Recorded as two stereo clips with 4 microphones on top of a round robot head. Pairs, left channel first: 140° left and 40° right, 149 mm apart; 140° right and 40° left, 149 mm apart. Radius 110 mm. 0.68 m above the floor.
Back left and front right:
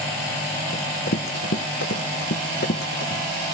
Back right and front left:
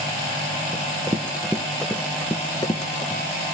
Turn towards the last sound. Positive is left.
turn(degrees=160)